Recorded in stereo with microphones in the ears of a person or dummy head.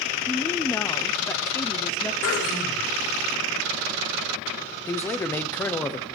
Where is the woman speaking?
10° left (ahead or behind), 0.6 m.